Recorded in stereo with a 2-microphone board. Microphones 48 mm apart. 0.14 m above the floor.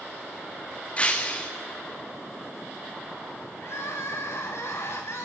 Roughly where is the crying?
Left.